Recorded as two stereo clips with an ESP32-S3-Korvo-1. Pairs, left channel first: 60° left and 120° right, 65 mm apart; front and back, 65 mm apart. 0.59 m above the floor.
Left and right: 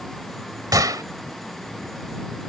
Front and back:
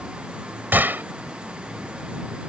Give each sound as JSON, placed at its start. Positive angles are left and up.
{"t": 0.7, "sound": "a gunshot", "azimuth_deg": -120}